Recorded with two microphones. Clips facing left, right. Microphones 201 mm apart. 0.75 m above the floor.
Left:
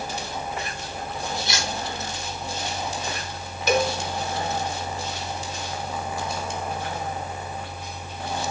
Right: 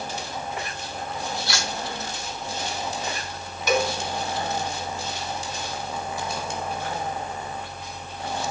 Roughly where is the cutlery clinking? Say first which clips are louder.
Left 1 dB; left.